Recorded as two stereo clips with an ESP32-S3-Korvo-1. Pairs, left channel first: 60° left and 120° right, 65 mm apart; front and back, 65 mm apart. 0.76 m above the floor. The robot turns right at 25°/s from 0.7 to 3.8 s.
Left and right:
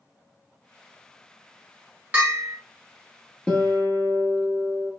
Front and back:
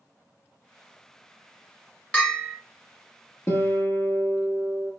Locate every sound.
2.1 s a bell: 70° right, 1.3 m; by 2.6 s 60° right, 1.3 m
3.5 s a guitar: 5° right, 0.7 m; by 4.9 s 5° left, 0.7 m